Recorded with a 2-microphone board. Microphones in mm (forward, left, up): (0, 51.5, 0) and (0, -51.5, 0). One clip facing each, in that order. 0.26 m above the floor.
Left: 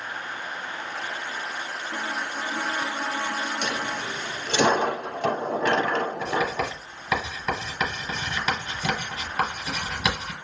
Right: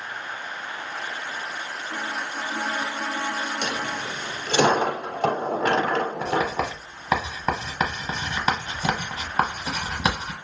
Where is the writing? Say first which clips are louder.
Right 2 dB; 35° right (ahead or behind), 1.0 m.